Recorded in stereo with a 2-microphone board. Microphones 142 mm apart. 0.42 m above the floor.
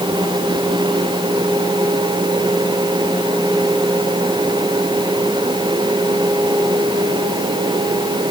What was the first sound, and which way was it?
Only background noise.